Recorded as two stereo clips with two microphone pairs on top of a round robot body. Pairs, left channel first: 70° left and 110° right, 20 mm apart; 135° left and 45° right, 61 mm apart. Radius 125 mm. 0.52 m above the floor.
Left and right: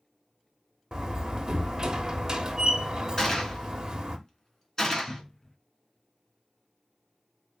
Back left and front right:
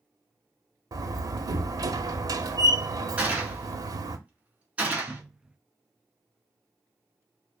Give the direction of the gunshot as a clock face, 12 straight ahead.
11 o'clock.